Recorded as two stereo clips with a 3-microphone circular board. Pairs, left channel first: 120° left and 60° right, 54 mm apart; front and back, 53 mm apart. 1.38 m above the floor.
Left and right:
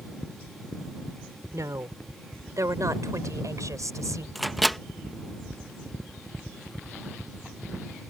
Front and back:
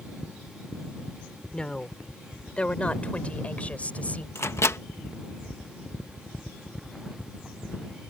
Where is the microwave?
30° left.